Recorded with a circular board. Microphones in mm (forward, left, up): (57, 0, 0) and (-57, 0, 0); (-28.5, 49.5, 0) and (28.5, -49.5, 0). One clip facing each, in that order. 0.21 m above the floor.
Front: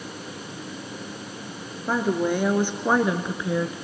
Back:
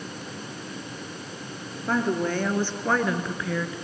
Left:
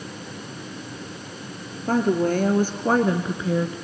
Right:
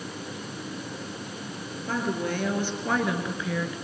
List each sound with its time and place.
1.9 s a woman speaking: 80° left, 3.5 m; by 3.8 s 65° left, 2.5 m